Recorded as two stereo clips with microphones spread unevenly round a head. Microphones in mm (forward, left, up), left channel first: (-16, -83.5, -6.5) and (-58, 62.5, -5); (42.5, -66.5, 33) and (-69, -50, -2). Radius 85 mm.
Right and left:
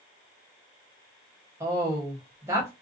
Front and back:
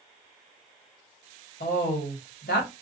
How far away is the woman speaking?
About 1.0 m.